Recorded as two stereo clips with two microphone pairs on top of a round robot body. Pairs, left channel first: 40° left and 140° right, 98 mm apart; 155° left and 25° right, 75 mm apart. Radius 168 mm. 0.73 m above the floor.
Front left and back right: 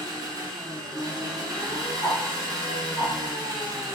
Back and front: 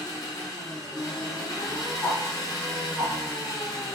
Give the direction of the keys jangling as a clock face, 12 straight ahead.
I don't hear keys jangling.